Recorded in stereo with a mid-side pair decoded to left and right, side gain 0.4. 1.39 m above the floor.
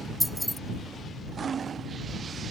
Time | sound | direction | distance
0.2 | keys jangling | straight ahead | ?